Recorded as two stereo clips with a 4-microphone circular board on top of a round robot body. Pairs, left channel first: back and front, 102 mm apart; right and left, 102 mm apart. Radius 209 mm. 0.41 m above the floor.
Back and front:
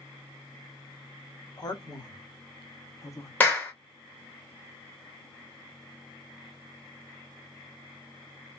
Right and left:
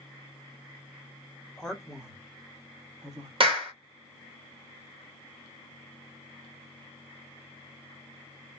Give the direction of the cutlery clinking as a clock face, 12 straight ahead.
No cutlery clinking in this recording.